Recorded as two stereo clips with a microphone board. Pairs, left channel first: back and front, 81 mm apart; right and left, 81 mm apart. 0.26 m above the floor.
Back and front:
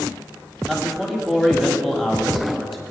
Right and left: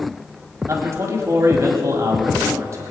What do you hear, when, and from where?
0.7 s a man speaking: 85° left, 1.7 m